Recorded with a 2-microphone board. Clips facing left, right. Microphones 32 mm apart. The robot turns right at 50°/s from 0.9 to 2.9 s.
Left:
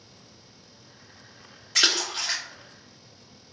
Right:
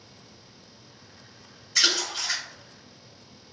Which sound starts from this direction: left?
A splash, at 1.8 s.